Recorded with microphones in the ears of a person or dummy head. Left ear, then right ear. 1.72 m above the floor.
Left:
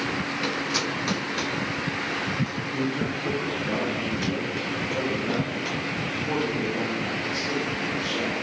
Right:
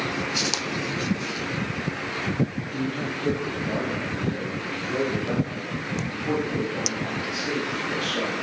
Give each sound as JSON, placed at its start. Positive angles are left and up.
{"t": 2.7, "sound": "a man speaking", "side_deg": -20, "distance_m": 1.0}